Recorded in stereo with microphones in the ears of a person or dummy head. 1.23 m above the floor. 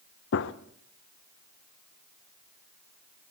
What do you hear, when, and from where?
0.3 s a gunshot: 65° left (ahead or behind), 0.6 m